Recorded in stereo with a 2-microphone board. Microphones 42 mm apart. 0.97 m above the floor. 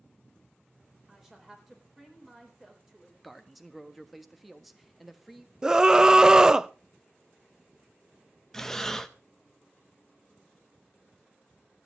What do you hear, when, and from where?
1.1 s a woman speaking: 10° right (ahead or behind), 4.5 m
3.2 s a man speaking: centre (ahead or behind), 1.4 m
5.6 s a scream: 20° right (ahead or behind), 0.5 m
8.5 s breathing: 5° left (ahead or behind), 0.9 m